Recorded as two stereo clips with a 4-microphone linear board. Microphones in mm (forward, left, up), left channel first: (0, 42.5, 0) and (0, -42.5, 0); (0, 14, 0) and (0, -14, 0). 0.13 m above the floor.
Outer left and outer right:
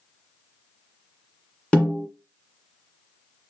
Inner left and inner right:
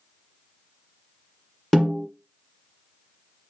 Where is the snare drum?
10° left (ahead or behind), 1.7 m.